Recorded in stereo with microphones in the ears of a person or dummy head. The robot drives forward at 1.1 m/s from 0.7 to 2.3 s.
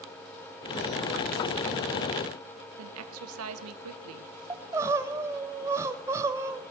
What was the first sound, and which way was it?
A woman speaking, 80° right.